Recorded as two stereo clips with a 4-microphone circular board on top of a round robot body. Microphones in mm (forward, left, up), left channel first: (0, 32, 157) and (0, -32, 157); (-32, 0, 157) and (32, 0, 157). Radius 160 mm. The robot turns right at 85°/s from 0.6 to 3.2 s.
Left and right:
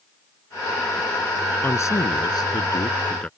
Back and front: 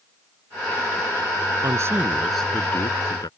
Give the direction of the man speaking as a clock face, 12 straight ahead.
11 o'clock.